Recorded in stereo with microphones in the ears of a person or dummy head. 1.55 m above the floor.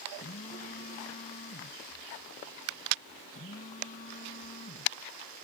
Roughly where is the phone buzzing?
Left.